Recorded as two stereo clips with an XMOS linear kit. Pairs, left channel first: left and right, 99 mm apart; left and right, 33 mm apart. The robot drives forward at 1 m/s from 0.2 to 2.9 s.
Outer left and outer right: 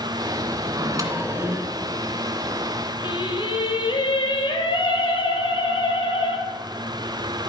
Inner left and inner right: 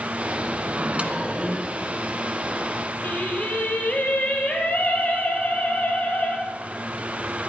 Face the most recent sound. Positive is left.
turn(degrees=55)  # may be behind; listen again after turning